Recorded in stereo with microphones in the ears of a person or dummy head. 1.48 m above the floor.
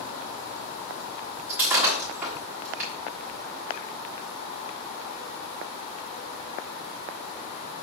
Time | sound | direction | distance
1.5 | breaking glass | 5° right (ahead or behind) | 1.4 m